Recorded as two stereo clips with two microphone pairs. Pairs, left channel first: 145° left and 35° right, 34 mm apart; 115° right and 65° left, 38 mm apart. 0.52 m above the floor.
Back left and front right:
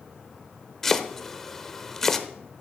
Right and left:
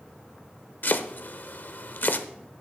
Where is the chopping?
135° right, 0.8 m.